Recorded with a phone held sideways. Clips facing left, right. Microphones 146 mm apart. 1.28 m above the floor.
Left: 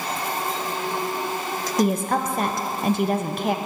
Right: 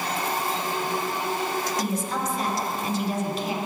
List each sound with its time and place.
1.8 s a woman speaking: 60° left (ahead or behind), 0.6 m